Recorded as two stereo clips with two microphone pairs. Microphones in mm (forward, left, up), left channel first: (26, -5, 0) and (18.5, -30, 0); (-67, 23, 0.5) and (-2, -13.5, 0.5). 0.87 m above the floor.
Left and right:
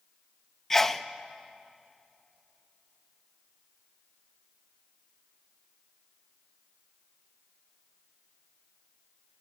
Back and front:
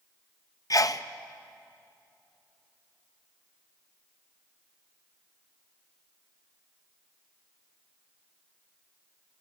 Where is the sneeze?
150° left, 0.7 m.